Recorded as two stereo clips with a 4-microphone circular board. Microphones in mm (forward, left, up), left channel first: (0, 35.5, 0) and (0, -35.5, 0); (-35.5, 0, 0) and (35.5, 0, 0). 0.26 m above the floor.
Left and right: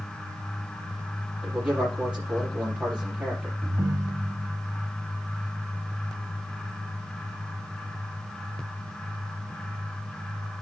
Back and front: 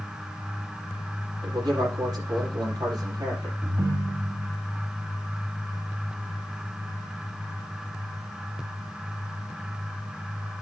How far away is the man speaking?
About 5.5 m.